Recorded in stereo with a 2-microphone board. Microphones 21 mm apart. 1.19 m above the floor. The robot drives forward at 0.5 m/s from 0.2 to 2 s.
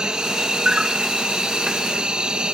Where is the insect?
50° right (ahead or behind); by 2.5 s 60° right (ahead or behind).